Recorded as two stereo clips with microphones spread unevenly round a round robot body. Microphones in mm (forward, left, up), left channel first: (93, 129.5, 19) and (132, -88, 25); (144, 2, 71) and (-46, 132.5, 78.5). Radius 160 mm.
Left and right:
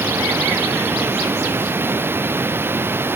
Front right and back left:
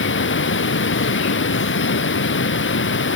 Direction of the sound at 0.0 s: Straight ahead.